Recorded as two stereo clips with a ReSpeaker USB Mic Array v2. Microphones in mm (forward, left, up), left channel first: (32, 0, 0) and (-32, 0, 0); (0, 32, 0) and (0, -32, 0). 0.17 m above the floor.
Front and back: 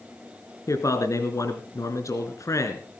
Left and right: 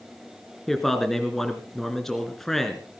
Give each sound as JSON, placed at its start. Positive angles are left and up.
{"t": 0.7, "sound": "a man speaking", "azimuth_deg": 5, "distance_m": 2.5}